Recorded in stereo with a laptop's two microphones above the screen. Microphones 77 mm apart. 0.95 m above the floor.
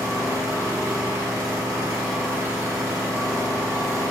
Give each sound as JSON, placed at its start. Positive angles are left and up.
{"t": 0.0, "sound": "an engine running", "side_deg": -45, "distance_m": 1.4}